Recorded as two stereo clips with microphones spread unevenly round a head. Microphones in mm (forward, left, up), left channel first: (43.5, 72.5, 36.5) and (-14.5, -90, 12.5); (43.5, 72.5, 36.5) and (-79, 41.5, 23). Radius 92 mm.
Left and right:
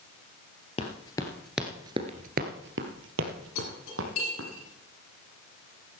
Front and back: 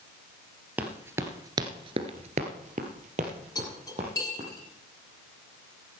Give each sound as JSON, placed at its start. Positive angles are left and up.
{"t": 0.8, "sound": "running footsteps", "azimuth_deg": 115, "distance_m": 2.0}
{"t": 3.5, "sound": "cutlery clinking", "azimuth_deg": 75, "distance_m": 10.0}